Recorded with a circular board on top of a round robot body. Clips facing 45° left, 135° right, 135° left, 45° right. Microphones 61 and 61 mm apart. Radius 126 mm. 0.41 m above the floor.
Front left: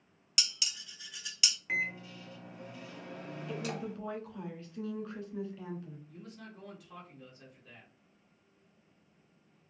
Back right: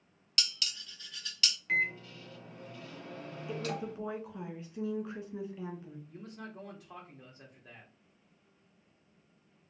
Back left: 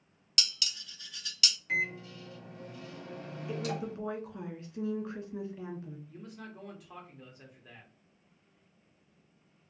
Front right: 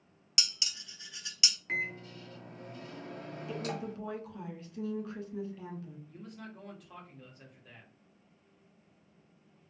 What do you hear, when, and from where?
0.4 s dishes clattering: 15° right, 0.7 m
1.7 s a microwave: 25° right, 1.5 m
3.5 s a woman speaking: 170° left, 1.5 m
6.1 s a man speaking: 140° right, 1.0 m